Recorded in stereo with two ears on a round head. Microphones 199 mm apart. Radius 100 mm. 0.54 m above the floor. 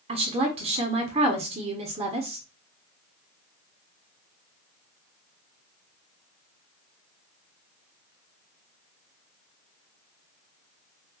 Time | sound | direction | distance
0.1 | a woman speaking | 25° right (ahead or behind) | 1.1 m